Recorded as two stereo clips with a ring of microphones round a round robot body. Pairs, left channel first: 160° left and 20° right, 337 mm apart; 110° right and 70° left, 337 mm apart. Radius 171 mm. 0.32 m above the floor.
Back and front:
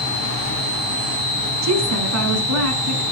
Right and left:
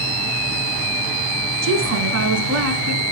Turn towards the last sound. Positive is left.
turn(degrees=25)